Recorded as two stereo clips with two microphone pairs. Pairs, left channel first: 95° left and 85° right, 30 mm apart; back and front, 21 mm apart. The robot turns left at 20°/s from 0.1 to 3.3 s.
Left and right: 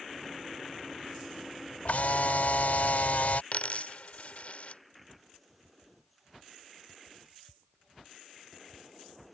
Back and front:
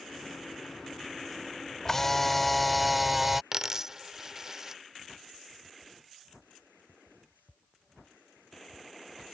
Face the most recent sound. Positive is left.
turn(degrees=65)